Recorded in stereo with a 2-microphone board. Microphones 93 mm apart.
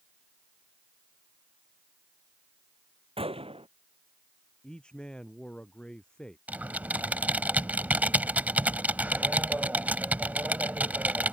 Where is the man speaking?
10° left (ahead or behind).